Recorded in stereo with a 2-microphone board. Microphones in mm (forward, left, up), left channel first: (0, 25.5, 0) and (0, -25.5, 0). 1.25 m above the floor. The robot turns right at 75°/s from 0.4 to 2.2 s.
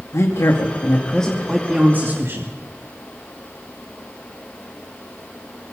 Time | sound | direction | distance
0.1 | a woman speaking | 105° left | 2.5 m